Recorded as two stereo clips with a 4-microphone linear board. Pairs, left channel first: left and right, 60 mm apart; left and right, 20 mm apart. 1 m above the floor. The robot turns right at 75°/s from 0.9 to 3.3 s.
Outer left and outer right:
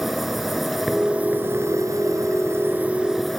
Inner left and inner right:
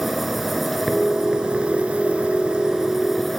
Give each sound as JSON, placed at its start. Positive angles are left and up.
{"t": 0.0, "sound": "an insect", "azimuth_deg": -175}